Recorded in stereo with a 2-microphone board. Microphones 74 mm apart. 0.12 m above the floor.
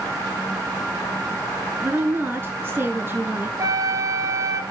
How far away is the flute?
About 1.0 m.